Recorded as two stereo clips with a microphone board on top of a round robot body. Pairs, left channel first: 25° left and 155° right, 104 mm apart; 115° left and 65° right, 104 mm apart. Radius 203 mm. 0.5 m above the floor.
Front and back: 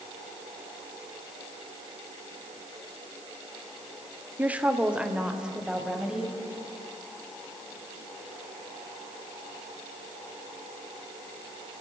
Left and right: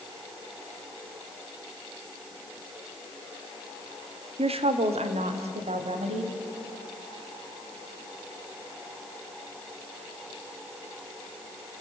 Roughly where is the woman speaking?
Right.